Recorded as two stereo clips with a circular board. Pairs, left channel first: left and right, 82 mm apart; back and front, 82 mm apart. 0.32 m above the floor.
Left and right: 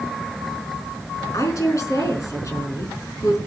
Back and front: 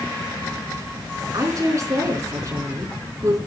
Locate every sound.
1.3 s a woman speaking: 45° left, 4.5 m